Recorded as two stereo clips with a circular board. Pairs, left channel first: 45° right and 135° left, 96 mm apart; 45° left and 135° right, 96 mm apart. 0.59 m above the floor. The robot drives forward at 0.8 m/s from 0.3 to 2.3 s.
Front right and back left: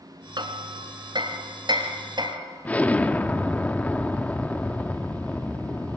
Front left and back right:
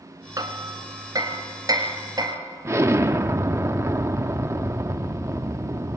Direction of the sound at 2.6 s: 105° right.